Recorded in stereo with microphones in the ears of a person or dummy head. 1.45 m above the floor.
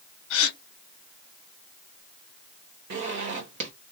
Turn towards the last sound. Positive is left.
turn(degrees=-55)  # may be behind; listen again after turning